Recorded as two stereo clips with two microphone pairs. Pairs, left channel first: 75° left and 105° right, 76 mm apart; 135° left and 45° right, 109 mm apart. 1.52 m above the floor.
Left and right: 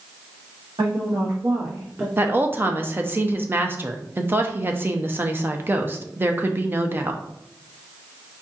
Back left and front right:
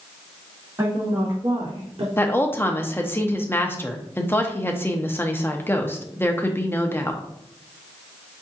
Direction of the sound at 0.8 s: 105° right.